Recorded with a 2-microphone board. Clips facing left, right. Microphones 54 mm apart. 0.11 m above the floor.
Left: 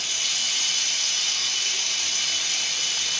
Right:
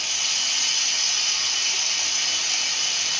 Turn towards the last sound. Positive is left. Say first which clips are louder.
# right 1 dB
turn(degrees=-55)  # may be behind; listen again after turning